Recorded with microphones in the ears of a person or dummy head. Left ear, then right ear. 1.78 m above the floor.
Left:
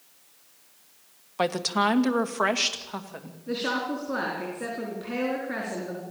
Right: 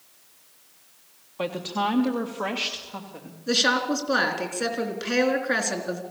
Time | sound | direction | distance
1.4 | a woman speaking | 65° left (ahead or behind) | 1.6 m
3.5 | a woman speaking | 70° right (ahead or behind) | 4 m